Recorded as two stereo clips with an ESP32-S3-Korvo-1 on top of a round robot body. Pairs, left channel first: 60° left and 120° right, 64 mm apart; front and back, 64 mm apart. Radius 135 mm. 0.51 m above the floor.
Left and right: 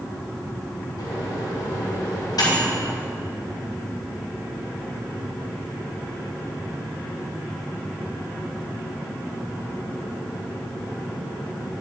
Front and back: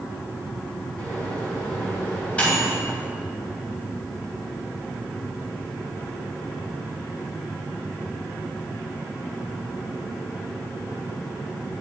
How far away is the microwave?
About 2.5 m.